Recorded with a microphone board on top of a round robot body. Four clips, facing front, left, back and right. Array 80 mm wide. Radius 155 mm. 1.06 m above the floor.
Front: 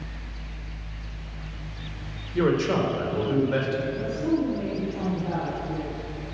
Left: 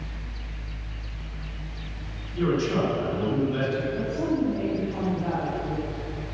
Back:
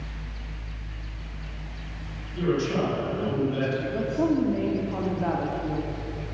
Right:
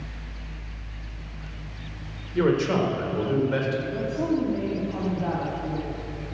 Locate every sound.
2.4 s a man speaking: 45° right, 4 m
3.9 s a woman speaking: 165° right, 3 m